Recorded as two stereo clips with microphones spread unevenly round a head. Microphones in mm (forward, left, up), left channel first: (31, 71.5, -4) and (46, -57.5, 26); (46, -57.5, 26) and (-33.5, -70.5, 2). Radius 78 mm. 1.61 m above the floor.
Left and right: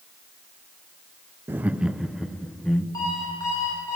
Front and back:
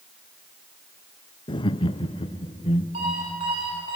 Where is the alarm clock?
170° left, 9.5 m.